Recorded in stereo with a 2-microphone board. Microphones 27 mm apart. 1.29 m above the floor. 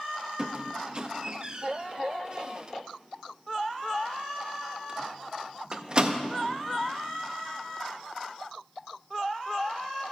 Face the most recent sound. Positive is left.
turn(degrees=-35)  # may be behind; listen again after turning